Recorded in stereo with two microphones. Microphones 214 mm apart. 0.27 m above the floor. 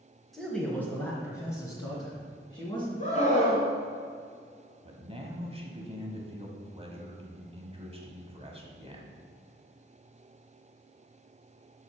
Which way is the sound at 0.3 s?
Centre (ahead or behind).